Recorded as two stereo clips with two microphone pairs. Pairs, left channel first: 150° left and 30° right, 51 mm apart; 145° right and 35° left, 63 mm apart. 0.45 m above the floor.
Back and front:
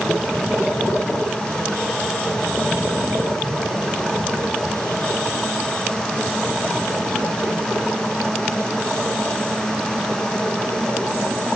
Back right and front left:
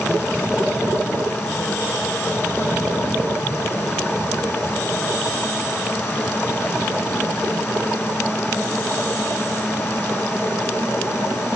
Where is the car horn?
I don't hear a car horn.